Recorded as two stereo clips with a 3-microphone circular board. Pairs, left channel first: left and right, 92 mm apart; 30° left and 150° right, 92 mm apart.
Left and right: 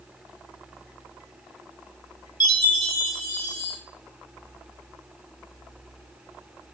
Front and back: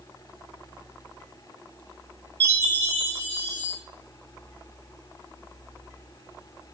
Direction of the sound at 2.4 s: 95° left.